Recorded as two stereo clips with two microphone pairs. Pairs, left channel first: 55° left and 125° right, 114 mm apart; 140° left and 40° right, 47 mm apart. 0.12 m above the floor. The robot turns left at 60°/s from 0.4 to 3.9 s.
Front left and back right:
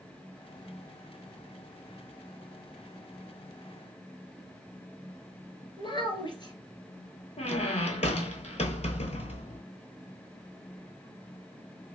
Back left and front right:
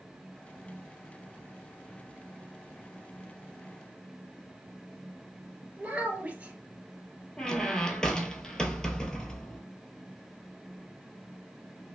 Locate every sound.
5.8 s a child speaking: 20° left, 1.5 m
7.4 s a squeak: 60° left, 0.6 m